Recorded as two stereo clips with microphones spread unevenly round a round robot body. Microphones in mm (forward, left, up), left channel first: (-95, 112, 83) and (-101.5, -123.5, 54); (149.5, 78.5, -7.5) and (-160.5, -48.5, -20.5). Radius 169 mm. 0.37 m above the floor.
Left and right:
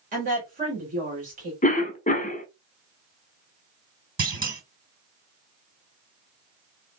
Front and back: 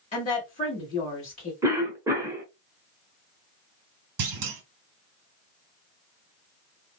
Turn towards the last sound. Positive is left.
turn(degrees=-140)